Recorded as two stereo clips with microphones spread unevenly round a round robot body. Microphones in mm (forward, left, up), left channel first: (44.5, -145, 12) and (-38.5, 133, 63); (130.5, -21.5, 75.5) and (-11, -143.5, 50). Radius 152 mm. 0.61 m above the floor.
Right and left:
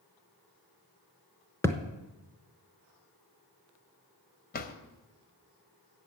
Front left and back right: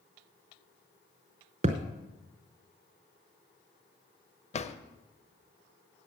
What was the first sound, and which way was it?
A thud, 165° right.